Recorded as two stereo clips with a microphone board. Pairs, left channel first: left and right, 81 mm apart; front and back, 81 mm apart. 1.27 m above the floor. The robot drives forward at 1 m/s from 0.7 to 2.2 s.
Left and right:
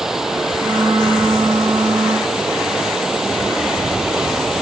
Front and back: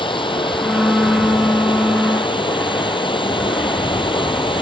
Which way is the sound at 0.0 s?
5° right.